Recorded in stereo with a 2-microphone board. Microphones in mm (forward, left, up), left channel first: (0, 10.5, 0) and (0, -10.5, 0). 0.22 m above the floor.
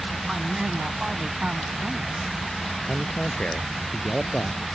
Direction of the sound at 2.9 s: 55° left (ahead or behind).